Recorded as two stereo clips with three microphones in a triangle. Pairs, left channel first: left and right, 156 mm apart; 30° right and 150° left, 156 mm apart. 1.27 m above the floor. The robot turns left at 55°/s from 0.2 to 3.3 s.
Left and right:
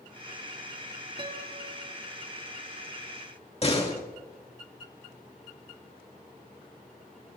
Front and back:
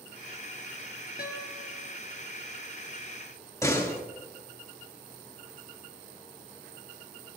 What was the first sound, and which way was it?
A guitar, 35° right.